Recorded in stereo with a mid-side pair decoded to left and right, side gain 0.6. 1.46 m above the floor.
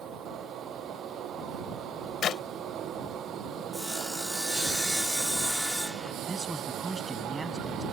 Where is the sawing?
5° right.